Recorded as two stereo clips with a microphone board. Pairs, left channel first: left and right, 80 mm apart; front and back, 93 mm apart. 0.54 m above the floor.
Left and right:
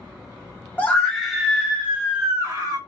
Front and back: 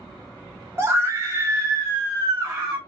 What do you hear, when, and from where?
0.8 s a scream: 145° left, 1.0 m; by 2.8 s 125° right, 1.4 m